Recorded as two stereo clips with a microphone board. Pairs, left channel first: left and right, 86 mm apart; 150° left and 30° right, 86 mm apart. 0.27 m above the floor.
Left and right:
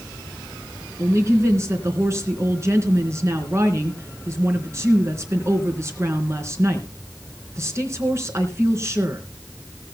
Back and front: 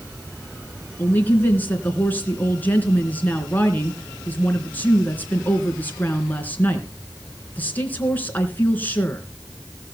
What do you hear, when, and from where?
1.0 s a woman speaking: 145° right, 3 m